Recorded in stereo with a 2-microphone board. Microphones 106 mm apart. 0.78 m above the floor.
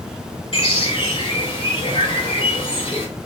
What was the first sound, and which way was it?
A bird, 55° left (ahead or behind).